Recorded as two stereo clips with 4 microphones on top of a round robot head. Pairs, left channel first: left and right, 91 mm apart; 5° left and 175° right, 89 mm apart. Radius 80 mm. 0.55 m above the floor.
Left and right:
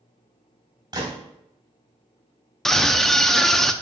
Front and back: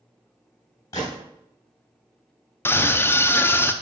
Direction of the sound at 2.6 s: 10° left.